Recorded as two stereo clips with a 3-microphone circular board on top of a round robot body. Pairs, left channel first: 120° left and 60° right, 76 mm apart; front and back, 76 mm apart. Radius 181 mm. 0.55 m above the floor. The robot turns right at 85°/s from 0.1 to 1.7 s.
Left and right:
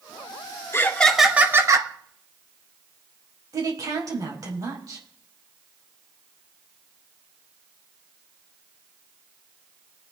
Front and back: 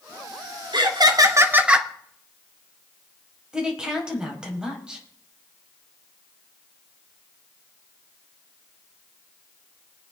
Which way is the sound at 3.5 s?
100° right.